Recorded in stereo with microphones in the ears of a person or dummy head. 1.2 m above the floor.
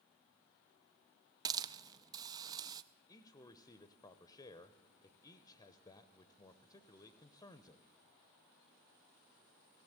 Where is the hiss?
20° right (ahead or behind), 0.5 m.